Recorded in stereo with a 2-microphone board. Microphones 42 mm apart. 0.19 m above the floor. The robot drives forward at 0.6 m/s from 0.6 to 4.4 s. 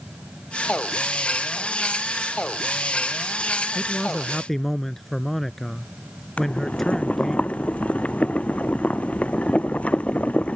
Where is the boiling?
30° left (ahead or behind).